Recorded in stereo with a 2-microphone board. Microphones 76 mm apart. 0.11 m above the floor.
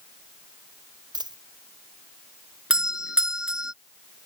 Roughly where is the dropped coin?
Right.